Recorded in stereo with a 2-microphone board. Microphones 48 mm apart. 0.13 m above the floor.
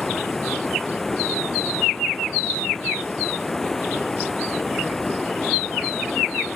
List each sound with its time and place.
0.0 s running water: 5° left (ahead or behind)